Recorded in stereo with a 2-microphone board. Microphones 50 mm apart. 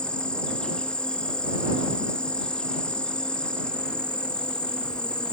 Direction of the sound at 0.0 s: 20° left (ahead or behind).